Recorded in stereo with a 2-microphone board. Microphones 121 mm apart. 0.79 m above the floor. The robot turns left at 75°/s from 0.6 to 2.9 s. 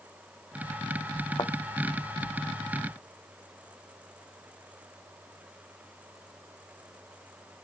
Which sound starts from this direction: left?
A thud, at 1.4 s.